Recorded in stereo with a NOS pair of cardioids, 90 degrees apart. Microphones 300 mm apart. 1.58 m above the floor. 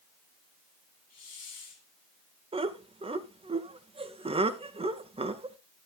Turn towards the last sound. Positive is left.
turn(degrees=-20)